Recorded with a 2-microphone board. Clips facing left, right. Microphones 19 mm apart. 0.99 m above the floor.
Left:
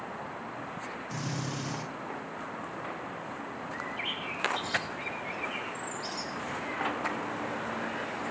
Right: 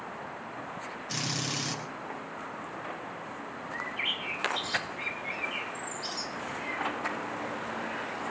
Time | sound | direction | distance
1.1 | a drill | 55° right (ahead or behind) | 7 m
3.7 | a bird | 15° right (ahead or behind) | 3 m